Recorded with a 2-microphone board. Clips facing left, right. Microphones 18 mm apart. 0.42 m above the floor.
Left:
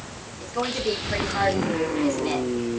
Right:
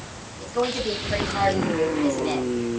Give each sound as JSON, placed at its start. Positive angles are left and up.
{"t": 0.4, "sound": "a woman speaking", "side_deg": 0, "distance_m": 3.0}